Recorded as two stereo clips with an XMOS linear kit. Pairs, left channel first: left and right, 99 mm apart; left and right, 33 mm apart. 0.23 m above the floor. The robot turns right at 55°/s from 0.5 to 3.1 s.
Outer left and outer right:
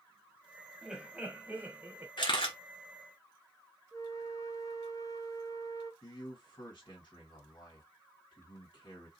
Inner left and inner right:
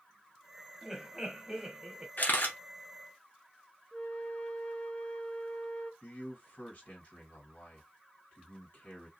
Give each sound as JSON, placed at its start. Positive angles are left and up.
{"t": 0.8, "sound": "laughter", "side_deg": -5, "distance_m": 1.1}
{"t": 2.2, "sound": "a camera shutter", "side_deg": 50, "distance_m": 1.4}
{"t": 3.9, "sound": "a flute", "side_deg": 35, "distance_m": 0.5}
{"t": 6.0, "sound": "a man speaking", "side_deg": 50, "distance_m": 2.5}